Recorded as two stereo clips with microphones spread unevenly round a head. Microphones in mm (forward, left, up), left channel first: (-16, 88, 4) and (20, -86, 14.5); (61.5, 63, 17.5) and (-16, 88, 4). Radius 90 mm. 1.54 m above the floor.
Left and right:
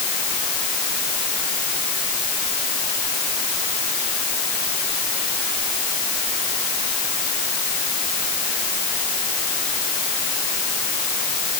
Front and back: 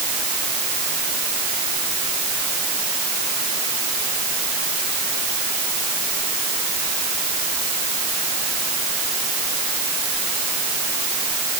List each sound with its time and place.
Only background noise.